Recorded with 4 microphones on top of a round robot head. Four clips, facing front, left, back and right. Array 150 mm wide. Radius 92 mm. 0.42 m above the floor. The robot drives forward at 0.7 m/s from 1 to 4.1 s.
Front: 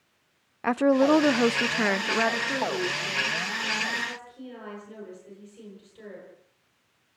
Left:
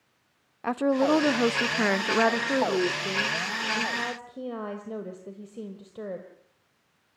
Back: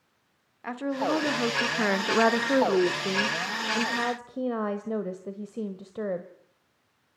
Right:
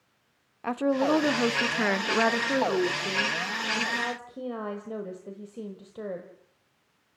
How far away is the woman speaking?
About 0.9 m.